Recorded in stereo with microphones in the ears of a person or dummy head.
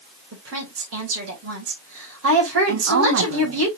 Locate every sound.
0.3 s a woman speaking: 75° right (ahead or behind), 2.5 m
2.7 s a woman speaking: 65° right (ahead or behind), 1.5 m